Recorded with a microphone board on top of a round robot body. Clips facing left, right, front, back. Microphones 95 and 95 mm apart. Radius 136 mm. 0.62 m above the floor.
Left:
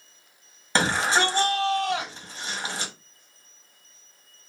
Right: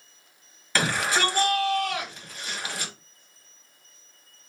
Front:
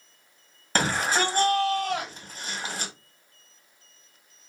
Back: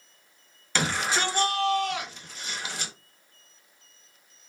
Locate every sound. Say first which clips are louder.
0.8 s a shout: left 3 dB, front 3 dB; 35° left, 1.6 m